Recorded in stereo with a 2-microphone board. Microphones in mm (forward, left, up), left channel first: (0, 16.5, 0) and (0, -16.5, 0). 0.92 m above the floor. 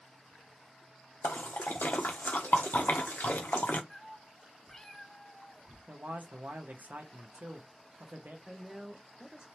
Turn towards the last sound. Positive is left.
turn(degrees=-25)  # may be behind; listen again after turning